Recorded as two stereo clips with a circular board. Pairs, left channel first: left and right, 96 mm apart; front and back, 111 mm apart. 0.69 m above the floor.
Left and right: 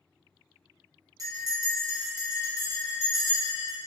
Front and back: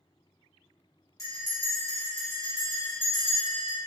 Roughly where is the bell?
Ahead right.